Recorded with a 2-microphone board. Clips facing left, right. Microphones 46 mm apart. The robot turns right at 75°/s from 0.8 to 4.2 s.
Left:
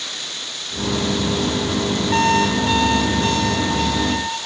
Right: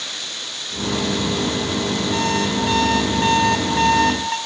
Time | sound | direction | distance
2.1 | an alarm clock | 130° left | 4 m